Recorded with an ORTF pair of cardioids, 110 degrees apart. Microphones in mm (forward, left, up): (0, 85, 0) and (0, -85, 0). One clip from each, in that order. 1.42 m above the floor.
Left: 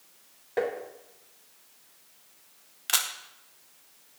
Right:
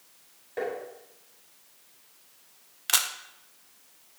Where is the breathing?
No breathing in this recording.